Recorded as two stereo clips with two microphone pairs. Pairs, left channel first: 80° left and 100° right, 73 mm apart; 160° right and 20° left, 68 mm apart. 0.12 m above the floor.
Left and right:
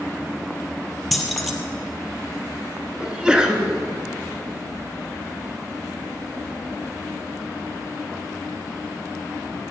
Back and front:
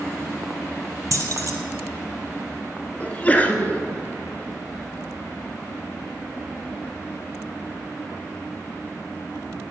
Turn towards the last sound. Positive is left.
turn(degrees=-160)